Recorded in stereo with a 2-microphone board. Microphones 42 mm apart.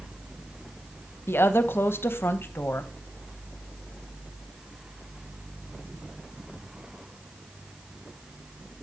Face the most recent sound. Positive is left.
turn(degrees=65)  # may be behind; listen again after turning